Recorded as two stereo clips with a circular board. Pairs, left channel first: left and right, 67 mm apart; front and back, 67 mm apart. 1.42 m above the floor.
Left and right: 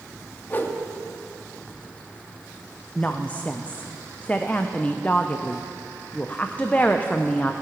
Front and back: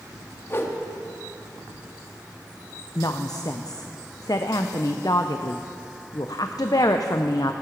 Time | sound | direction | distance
0.5 | a whoosh | 40° left | 1.1 m
3.0 | a woman speaking | 25° left | 0.5 m